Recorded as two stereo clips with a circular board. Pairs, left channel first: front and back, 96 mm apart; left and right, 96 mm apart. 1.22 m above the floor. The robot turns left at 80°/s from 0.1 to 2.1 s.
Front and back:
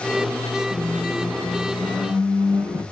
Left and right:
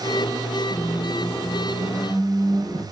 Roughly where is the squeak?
Ahead.